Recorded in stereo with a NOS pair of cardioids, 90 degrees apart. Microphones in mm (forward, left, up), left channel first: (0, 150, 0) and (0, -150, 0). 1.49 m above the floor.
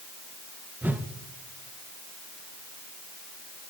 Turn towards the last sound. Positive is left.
turn(degrees=-5)